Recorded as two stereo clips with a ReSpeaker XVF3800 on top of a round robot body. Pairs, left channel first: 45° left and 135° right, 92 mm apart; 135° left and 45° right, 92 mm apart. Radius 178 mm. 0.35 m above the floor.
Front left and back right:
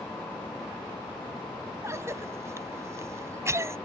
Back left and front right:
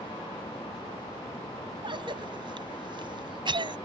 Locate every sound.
1.8 s a cough: 75° right